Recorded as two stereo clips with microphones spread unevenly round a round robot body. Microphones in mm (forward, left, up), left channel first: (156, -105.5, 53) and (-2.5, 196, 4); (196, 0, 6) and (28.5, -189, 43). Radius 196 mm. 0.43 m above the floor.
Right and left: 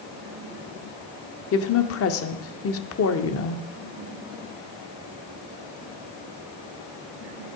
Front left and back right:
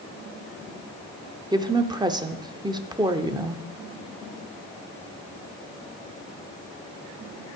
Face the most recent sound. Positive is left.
turn(degrees=-55)